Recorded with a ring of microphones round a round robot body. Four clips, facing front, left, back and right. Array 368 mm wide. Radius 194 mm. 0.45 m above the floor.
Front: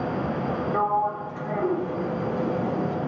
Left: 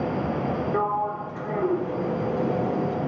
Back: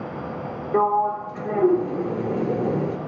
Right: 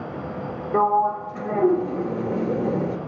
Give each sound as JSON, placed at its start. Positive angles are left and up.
{"t": 0.7, "sound": "a sliding door", "azimuth_deg": -135, "distance_m": 2.0}